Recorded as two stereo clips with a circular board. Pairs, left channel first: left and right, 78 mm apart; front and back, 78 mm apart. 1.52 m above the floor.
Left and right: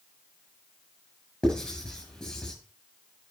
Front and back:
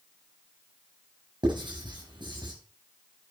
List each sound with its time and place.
1.4 s writing: 175° left, 6.5 m